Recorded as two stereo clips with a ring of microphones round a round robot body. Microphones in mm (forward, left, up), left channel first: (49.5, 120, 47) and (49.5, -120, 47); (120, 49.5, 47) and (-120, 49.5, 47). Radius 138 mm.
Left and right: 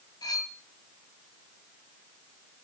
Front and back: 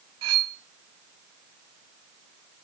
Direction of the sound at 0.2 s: 165° left.